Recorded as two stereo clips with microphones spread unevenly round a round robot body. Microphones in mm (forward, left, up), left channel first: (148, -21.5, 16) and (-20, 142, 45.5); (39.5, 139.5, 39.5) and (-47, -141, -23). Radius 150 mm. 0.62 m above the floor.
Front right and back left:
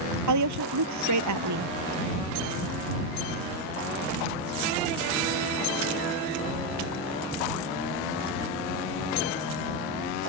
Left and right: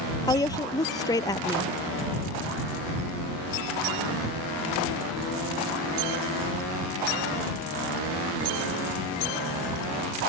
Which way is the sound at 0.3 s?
150° left.